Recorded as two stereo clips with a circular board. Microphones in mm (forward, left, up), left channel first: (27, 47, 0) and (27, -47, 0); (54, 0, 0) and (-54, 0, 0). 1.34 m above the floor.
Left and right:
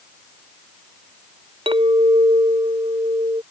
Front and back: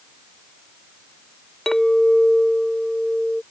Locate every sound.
1.7 s a clink: 85° right